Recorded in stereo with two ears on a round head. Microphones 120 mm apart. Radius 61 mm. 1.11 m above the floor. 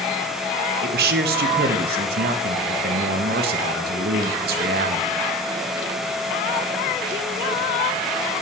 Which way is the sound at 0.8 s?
90° right.